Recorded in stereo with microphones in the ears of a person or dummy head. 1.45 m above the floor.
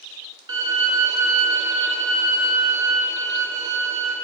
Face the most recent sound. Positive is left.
turn(degrees=-20)  # may be behind; listen again after turning